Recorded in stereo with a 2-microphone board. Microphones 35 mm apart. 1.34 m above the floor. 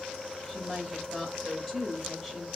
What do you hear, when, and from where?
0.5 s a woman speaking: 10° right (ahead or behind), 1.9 m